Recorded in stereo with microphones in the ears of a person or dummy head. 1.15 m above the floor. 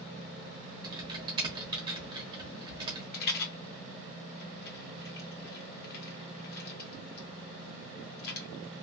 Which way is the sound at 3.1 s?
60° left (ahead or behind).